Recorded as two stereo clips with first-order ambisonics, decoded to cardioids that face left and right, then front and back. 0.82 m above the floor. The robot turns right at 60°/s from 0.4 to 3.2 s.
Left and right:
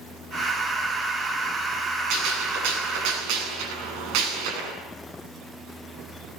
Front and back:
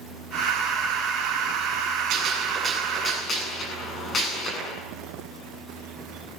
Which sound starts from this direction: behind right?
A gunshot, at 2.1 s.